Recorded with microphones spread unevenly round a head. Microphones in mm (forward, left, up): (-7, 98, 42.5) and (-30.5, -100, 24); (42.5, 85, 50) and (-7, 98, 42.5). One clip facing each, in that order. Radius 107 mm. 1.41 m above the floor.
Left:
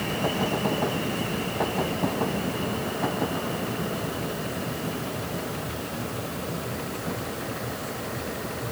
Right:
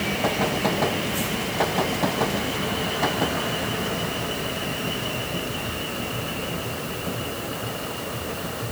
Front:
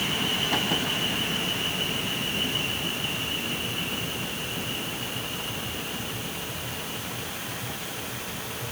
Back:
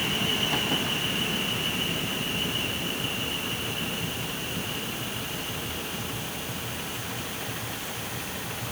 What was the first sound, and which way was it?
Only background noise.